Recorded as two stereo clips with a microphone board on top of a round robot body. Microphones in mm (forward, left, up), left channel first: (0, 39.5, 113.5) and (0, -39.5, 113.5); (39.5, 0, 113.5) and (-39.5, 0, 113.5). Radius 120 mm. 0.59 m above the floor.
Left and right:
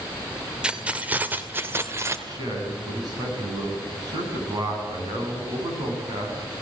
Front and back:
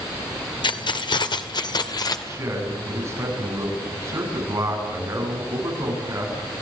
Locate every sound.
0.6 s keys jangling: 10° right, 1.9 m; by 2.2 s 35° right, 2 m
2.3 s a man speaking: 125° right, 7.5 m